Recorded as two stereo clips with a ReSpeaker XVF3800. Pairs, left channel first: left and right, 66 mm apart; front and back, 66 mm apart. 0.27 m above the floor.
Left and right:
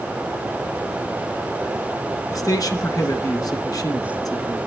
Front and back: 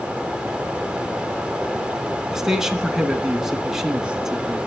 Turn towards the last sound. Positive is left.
turn(degrees=100)